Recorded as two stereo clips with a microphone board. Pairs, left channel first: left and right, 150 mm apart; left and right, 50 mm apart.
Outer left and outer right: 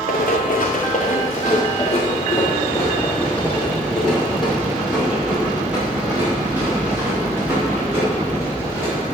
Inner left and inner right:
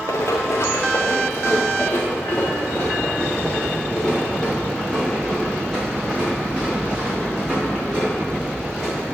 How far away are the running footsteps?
About 3 m.